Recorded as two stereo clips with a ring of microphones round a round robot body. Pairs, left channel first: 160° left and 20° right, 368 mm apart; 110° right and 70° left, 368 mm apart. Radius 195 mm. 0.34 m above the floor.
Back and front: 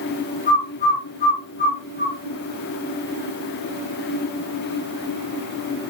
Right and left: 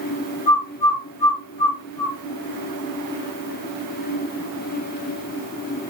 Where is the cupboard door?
I don't hear a cupboard door.